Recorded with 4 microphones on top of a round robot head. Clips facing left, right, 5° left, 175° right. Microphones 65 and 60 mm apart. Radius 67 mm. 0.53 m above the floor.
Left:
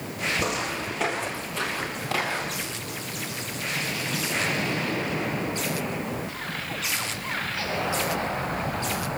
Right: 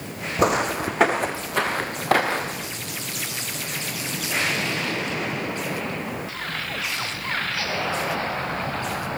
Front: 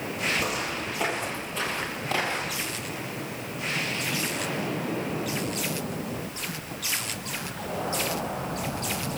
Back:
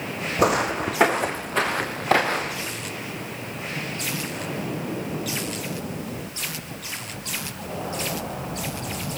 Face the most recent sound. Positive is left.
turn(degrees=-135)